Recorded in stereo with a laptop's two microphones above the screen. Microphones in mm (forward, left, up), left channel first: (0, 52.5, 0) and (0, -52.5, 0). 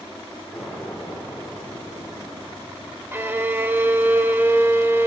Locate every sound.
0.5 s an explosion: centre (ahead or behind), 3.5 m
3.1 s a violin: 20° right (ahead or behind), 1.0 m